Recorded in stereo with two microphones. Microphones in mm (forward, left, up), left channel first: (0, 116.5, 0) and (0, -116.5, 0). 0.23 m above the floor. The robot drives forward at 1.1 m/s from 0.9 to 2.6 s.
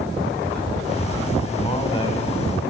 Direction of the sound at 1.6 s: 25° left (ahead or behind).